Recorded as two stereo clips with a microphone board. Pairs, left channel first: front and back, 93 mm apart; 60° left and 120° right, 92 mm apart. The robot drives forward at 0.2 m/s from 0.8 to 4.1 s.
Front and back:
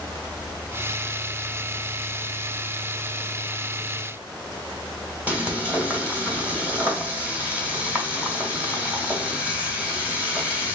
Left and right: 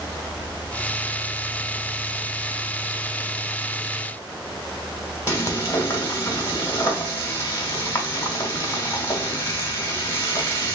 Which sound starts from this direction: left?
Frying, at 5.3 s.